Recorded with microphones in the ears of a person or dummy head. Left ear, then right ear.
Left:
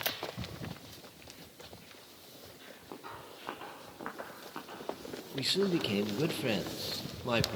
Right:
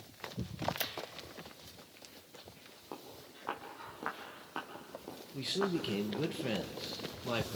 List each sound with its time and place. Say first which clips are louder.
2.9 s footsteps: left 3 dB; 15° right (ahead or behind), 3.5 m; by 6.3 s 40° right (ahead or behind), 4 m
5.3 s a man speaking: left 4 dB; 10° left (ahead or behind), 1.5 m